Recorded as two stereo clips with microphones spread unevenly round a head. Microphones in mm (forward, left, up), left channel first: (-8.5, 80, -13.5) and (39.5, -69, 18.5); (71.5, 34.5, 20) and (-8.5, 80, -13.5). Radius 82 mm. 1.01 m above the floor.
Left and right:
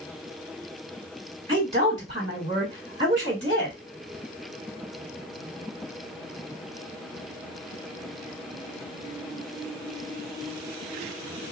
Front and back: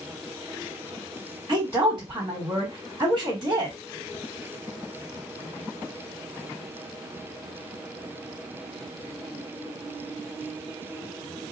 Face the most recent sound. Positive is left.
turn(degrees=-130)